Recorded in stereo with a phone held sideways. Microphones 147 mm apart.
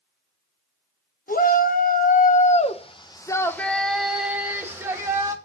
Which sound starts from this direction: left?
A shout, at 1.3 s.